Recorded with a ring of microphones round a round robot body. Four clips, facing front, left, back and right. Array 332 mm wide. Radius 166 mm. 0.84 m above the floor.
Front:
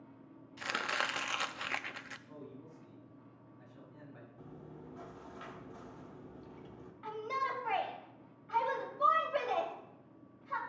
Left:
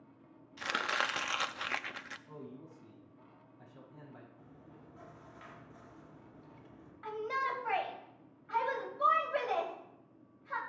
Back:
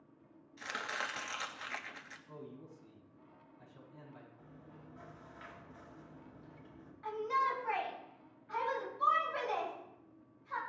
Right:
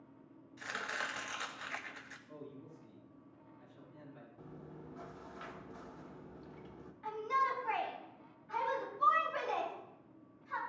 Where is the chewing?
35° right, 1.4 m.